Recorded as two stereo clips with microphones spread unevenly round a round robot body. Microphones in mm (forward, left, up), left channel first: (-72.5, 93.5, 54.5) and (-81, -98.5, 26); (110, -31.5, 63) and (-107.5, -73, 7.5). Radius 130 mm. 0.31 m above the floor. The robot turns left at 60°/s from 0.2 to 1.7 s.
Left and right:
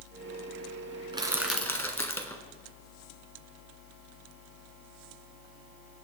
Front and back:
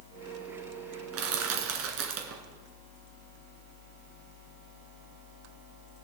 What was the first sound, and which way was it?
Crushing, 160° right.